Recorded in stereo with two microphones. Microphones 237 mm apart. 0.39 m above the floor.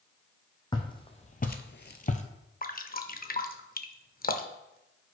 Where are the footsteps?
15° left (ahead or behind), 1.2 m; by 2.2 s 30° left (ahead or behind), 0.7 m.